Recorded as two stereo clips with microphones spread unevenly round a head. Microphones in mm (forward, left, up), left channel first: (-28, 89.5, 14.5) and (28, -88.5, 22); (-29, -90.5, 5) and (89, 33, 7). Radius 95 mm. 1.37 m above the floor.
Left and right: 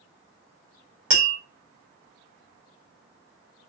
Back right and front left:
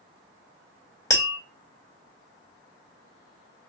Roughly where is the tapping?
Ahead right.